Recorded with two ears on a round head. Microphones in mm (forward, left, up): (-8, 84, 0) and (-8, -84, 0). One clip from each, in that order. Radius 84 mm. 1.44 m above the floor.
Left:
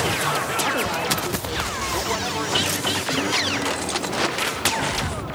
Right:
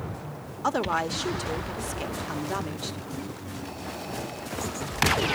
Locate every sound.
0.6 s a woman speaking: 75° right (ahead or behind), 1.2 m